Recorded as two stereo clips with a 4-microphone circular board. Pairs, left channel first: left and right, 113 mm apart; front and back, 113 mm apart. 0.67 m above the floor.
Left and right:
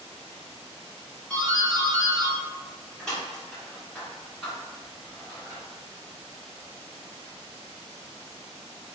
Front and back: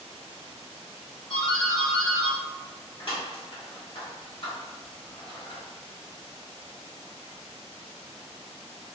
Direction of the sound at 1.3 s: 10° left.